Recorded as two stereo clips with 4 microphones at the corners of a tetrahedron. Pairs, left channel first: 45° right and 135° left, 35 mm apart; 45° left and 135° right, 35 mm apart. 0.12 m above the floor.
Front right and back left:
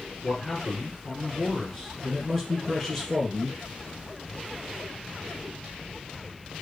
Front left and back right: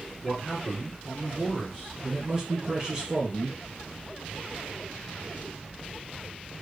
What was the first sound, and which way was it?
A man speaking, 5° right.